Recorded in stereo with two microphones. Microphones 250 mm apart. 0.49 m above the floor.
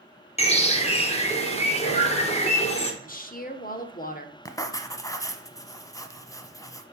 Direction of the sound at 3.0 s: 35° left (ahead or behind).